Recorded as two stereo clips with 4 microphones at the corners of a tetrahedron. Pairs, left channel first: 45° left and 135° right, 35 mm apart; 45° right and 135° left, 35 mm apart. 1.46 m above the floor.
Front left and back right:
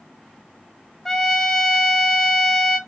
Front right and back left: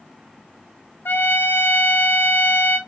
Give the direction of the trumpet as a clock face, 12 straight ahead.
1 o'clock.